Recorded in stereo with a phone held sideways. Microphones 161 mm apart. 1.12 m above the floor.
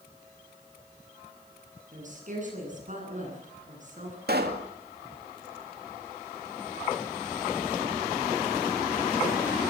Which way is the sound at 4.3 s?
70° right (ahead or behind).